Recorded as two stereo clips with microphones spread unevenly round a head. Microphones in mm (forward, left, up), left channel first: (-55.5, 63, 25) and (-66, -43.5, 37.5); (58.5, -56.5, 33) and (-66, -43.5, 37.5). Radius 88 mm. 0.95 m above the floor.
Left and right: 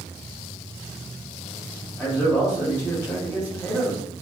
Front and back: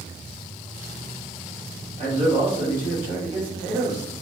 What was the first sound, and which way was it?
A man speaking, 145° left.